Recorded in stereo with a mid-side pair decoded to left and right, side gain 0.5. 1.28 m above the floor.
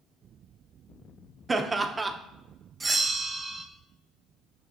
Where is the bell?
25° right, 1.0 m.